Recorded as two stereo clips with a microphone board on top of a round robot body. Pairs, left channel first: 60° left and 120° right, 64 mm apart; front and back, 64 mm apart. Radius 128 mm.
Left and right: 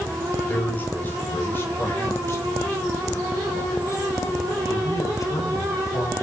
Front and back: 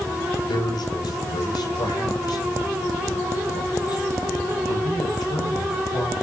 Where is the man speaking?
5° right, 6 m; by 6.1 s 25° left, 7 m.